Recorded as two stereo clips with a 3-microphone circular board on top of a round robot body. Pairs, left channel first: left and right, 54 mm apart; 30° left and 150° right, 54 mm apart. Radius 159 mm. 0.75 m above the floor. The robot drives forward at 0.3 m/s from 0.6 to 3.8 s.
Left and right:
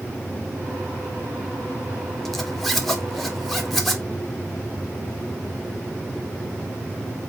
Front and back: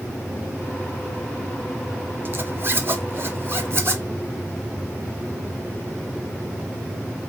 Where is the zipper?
175° left, 1.2 m.